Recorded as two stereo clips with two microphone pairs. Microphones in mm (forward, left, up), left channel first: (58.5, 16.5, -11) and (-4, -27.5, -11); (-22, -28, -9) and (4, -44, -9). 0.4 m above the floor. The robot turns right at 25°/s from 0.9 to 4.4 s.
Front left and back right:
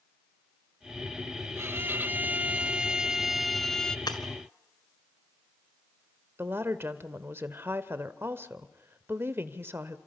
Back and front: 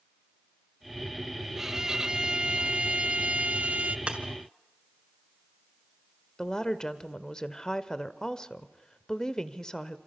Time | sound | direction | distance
1.6 | a violin | 105° right | 0.8 m
4.1 | breaking glass | 20° left | 2 m
6.4 | a woman speaking | 165° right | 1.3 m